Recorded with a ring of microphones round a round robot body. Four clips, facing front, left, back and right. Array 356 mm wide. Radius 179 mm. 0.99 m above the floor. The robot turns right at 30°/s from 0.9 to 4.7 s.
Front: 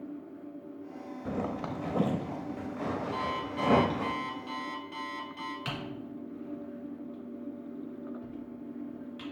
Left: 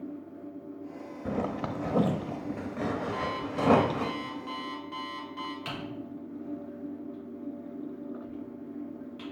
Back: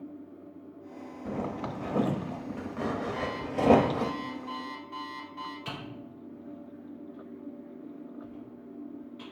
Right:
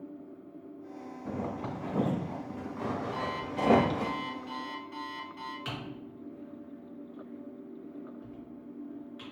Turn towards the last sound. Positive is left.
turn(degrees=0)